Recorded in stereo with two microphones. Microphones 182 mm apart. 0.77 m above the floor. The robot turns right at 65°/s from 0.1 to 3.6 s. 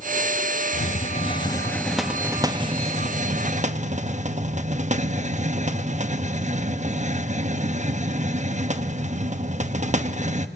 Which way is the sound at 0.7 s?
100° left.